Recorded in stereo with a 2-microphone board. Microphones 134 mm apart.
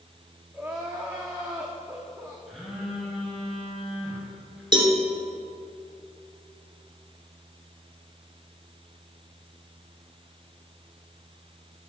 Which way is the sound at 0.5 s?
5° right (ahead or behind).